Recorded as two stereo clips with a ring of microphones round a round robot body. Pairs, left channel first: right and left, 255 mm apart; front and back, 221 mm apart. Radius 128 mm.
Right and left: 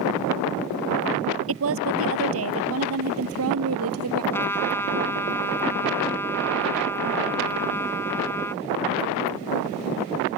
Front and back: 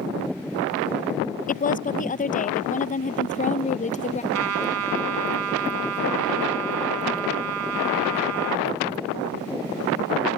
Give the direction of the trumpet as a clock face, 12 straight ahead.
6 o'clock.